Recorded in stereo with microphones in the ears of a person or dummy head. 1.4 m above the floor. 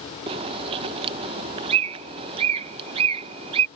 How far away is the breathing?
No breathing in this recording.